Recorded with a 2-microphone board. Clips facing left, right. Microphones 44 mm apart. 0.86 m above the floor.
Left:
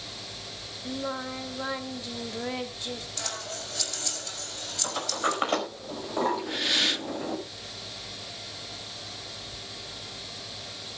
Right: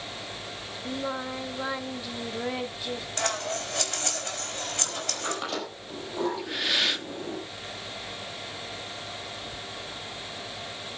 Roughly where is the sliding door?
Left.